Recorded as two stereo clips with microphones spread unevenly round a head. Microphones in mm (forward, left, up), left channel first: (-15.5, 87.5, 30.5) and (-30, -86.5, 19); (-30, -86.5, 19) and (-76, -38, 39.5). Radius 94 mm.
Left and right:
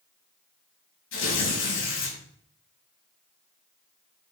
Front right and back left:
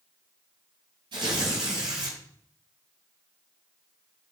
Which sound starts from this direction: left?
Tearing paper, at 1.1 s.